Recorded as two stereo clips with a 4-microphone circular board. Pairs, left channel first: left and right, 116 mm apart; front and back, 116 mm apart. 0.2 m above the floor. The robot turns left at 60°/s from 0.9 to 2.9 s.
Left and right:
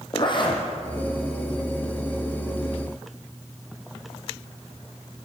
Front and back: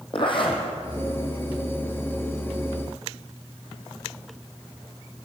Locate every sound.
0.1 s a zipper: 45° left, 4 m